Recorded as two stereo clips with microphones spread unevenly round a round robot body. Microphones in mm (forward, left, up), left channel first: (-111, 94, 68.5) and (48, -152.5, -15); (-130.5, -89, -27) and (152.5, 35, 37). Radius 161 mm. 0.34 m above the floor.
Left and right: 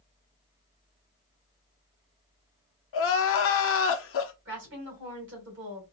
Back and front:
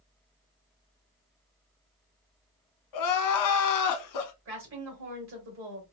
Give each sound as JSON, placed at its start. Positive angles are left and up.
{"t": 2.9, "sound": "crying", "azimuth_deg": 170, "distance_m": 0.6}
{"t": 4.5, "sound": "a woman speaking", "azimuth_deg": -30, "distance_m": 2.5}